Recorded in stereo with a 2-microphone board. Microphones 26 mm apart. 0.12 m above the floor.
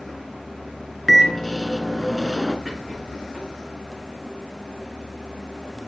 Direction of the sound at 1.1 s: 10° left (ahead or behind).